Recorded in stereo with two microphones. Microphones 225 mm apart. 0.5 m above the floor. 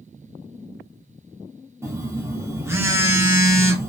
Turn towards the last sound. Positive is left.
turn(degrees=-10)  # may be behind; listen again after turning